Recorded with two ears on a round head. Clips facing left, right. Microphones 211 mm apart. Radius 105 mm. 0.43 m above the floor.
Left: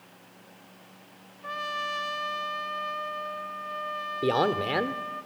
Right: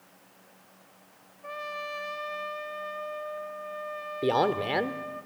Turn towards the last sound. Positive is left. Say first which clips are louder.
# even
turn(degrees=5)  # may be behind; listen again after turning